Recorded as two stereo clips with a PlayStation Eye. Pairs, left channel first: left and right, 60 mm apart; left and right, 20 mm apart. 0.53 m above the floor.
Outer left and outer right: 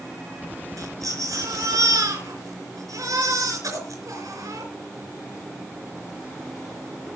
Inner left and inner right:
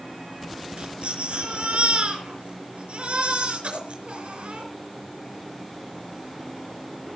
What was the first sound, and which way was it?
A baby crying, 75° right (ahead or behind).